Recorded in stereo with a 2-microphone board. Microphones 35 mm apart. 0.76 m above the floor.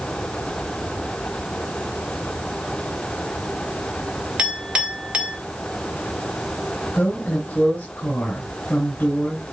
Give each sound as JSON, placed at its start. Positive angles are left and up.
{"t": 4.4, "sound": "a clink", "side_deg": -30, "distance_m": 2.5}
{"t": 6.9, "sound": "a woman speaking", "side_deg": 45, "distance_m": 5.0}